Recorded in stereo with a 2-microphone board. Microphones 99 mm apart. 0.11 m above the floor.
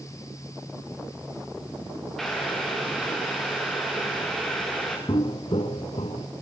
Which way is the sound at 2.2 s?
5° left (ahead or behind).